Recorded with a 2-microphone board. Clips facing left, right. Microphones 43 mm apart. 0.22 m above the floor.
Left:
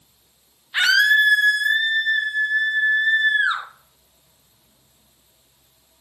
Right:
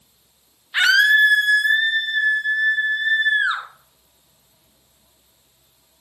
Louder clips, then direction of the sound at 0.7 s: Right 2 dB; 10° right (ahead or behind).